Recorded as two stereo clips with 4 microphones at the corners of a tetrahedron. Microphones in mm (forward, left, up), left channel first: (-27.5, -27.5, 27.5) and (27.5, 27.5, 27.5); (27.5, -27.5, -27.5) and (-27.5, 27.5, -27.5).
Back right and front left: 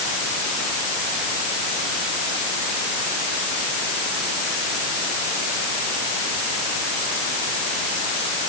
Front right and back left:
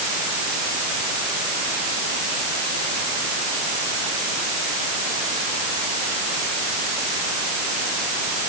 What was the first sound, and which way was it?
Only background noise.